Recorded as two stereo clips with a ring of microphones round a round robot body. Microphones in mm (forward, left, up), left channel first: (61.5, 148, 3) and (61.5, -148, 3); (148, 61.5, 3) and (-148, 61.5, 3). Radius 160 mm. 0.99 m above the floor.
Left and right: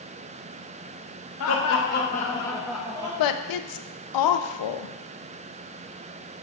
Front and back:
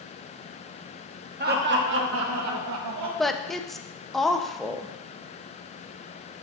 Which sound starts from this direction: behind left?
Laughter, at 1.4 s.